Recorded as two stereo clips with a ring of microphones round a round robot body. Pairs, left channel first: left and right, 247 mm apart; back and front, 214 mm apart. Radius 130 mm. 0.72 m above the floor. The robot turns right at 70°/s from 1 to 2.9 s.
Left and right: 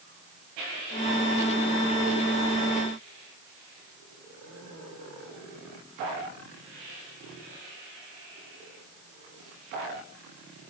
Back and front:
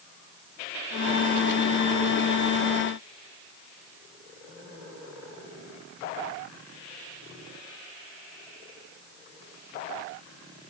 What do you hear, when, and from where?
Only background noise.